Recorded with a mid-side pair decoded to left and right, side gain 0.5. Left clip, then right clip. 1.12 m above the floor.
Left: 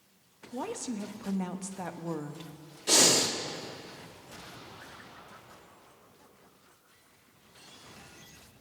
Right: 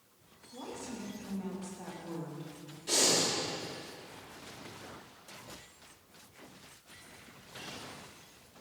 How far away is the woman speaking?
About 1.2 m.